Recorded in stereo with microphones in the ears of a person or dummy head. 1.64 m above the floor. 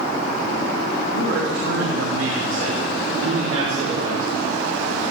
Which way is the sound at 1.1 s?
85° right.